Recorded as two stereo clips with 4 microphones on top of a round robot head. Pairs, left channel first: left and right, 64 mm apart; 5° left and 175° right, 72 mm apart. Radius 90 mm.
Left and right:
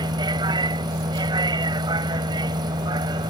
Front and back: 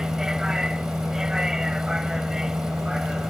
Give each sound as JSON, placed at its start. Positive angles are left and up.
{"t": 0.0, "sound": "a vehicle", "azimuth_deg": -90}